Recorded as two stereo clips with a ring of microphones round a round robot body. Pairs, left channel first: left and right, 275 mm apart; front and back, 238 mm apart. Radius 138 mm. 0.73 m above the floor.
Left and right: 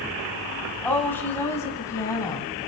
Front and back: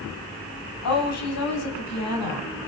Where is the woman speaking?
5° left, 5.5 m; by 2.5 s 10° left, 6.5 m.